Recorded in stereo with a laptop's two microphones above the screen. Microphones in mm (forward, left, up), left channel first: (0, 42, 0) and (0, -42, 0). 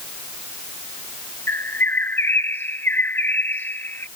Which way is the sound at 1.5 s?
25° left (ahead or behind).